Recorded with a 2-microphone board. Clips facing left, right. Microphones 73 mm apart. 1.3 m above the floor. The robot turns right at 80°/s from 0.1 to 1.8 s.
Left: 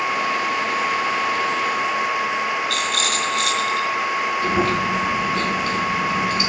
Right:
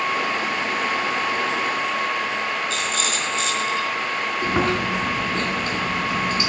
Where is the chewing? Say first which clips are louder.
Even; 25° right (ahead or behind), 5 m.